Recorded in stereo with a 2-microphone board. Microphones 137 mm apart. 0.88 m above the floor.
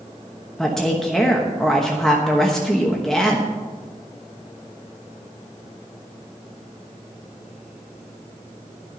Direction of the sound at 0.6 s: 5° left (ahead or behind).